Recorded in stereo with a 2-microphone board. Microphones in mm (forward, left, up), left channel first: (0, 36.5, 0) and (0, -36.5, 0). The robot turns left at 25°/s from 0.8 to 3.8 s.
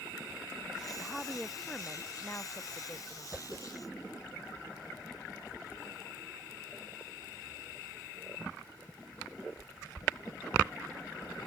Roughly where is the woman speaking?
Behind.